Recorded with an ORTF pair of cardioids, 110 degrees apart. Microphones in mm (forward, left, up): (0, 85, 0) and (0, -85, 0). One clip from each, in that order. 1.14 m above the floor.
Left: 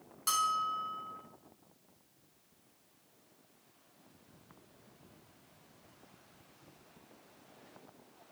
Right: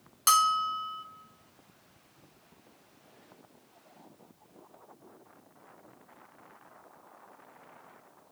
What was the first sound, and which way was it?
A bell, 50° right.